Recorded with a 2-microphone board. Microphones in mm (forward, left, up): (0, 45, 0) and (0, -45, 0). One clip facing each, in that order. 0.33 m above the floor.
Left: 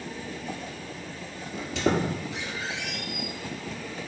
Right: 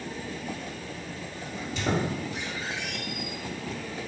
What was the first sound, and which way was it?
A squeak, 75° left (ahead or behind).